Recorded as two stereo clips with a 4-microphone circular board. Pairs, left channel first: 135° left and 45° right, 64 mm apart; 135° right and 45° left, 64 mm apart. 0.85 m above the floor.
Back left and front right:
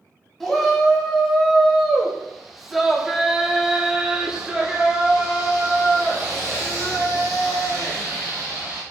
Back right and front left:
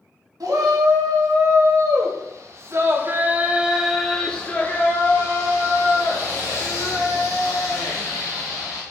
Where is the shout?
45° left, 2 m; by 8.8 s 130° right, 3 m.